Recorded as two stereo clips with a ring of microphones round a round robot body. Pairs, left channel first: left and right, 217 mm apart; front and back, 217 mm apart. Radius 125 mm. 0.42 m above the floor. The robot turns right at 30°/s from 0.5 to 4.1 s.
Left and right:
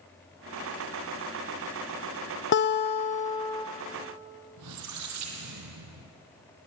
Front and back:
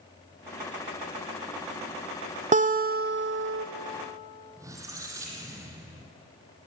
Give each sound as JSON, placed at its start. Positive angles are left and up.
{"t": 2.5, "sound": "a guitar", "azimuth_deg": 125, "distance_m": 1.2}
{"t": 4.6, "sound": "a squeak", "azimuth_deg": -100, "distance_m": 2.0}